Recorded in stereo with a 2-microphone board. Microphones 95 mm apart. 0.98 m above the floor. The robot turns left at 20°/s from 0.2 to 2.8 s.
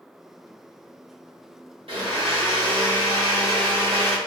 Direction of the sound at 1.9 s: 75° right (ahead or behind).